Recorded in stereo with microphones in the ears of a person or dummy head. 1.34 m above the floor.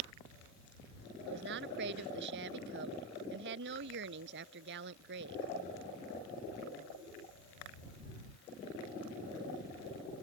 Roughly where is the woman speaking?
Right.